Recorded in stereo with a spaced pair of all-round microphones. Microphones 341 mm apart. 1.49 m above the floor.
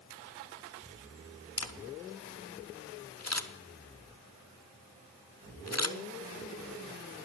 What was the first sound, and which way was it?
A camera shutter, 50° left (ahead or behind).